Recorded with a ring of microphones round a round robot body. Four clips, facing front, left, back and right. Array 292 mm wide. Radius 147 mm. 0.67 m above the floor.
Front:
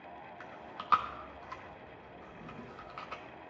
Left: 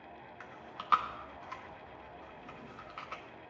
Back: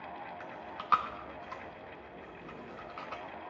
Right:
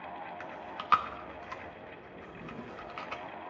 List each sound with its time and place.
0.4 s chewing: 85° right, 1.0 m
2.2 s a drawer: 70° right, 1.1 m